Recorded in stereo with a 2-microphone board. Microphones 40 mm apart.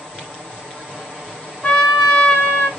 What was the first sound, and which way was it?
A trumpet, 35° left (ahead or behind).